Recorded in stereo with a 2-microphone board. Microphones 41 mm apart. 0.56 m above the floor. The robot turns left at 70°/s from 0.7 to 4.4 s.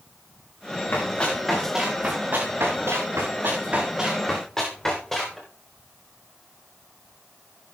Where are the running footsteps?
50° left (ahead or behind), 5.5 m; by 5.4 s 5° left (ahead or behind), 8 m.